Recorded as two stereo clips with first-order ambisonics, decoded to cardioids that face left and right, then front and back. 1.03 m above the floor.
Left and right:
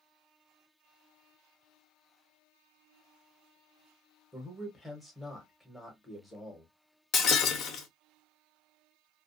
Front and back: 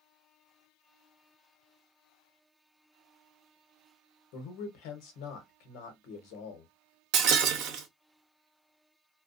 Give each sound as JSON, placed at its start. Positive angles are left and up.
{"t": 4.3, "sound": "a man speaking", "azimuth_deg": 0, "distance_m": 1.0}
{"t": 7.1, "sound": "breaking glass", "azimuth_deg": 145, "distance_m": 0.7}